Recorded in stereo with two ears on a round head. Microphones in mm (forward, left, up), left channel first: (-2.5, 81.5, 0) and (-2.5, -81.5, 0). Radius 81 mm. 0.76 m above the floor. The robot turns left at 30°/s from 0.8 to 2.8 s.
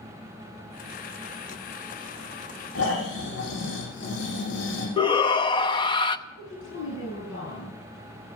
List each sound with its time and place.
2.8 s snoring: 70° left (ahead or behind), 7 m
5.0 s a shout: 25° left (ahead or behind), 0.7 m
6.3 s a woman speaking: 80° left, 6.5 m